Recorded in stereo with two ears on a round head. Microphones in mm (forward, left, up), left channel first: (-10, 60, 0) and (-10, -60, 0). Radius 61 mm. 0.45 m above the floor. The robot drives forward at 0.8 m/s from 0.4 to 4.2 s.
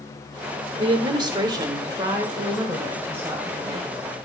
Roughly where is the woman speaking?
Right.